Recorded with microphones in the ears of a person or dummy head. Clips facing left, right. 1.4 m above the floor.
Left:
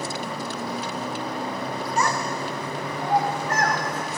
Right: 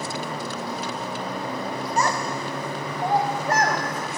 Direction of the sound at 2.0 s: 35° right (ahead or behind).